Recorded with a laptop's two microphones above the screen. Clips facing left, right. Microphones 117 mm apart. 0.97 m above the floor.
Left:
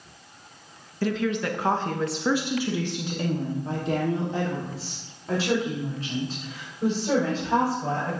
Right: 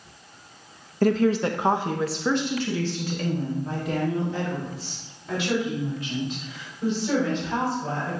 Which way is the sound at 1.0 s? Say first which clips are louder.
Right 5 dB; 45° right (ahead or behind).